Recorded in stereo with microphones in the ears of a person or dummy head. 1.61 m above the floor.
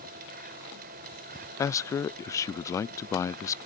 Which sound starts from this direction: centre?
A man speaking, at 1.6 s.